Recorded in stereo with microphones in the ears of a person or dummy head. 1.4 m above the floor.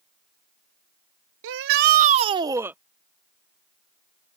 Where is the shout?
70° right (ahead or behind); by 2.8 s 10° right (ahead or behind).